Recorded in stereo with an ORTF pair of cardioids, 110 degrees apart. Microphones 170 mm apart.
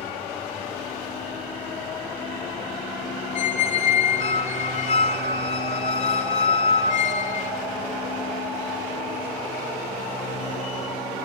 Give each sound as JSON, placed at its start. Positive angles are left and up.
{"t": 0.0, "sound": "a machine running", "azimuth_deg": 45, "distance_m": 3.0}
{"t": 3.4, "sound": "a squeak", "azimuth_deg": 50, "distance_m": 3.0}